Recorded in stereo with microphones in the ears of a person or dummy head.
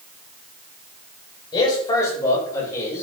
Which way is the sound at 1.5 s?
25° left (ahead or behind).